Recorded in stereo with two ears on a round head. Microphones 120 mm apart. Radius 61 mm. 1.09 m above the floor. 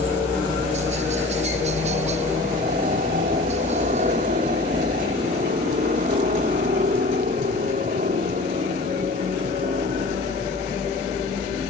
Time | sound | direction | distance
0.0 | a helicopter | 55° right (ahead or behind) | ?